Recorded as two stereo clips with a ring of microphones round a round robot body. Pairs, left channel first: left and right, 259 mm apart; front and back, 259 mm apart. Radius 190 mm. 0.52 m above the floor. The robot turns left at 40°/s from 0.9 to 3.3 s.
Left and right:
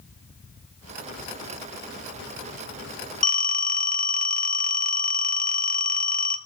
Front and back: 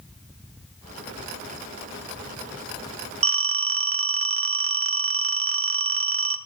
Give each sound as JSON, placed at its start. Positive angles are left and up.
{"t": 3.2, "sound": "a phone ringing", "azimuth_deg": 150, "distance_m": 1.0}